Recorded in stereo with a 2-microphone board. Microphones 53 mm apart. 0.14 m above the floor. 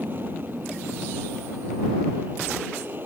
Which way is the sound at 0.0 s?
40° right (ahead or behind).